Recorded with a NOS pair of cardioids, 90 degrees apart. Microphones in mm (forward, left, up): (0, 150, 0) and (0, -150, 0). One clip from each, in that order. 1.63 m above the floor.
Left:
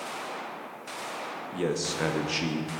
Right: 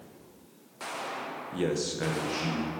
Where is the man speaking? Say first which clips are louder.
Left 1 dB; 5° right, 1.1 m; by 2.7 s 70° left, 1.3 m.